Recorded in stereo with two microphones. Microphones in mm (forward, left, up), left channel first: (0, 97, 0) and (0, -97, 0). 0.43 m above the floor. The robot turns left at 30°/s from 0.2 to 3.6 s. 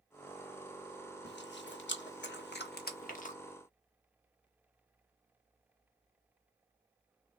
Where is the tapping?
50° left (ahead or behind), 0.6 m; by 3.2 s 45° left (ahead or behind), 0.6 m.